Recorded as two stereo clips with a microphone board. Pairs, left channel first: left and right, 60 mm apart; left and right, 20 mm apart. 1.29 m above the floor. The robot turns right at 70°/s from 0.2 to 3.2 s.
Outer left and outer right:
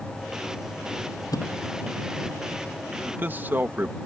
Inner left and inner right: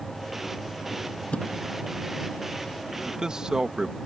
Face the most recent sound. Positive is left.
turn(degrees=-30)  # may be behind; listen again after turning